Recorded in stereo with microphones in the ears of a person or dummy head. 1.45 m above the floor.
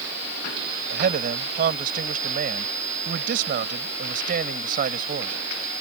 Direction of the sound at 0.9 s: 50° right (ahead or behind).